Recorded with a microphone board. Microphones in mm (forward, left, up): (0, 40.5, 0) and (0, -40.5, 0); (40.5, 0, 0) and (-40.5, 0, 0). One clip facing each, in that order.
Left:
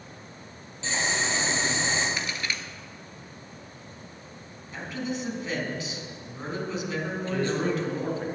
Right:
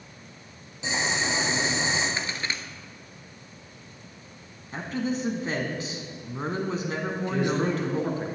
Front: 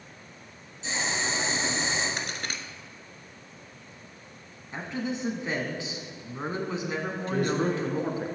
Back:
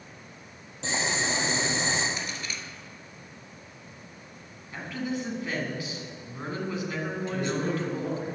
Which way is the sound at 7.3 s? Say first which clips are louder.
Right 1 dB, front 4 dB; 20° right.